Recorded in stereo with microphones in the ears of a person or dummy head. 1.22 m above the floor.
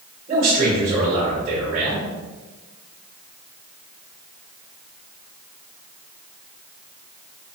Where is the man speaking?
40° right (ahead or behind), 1.7 m.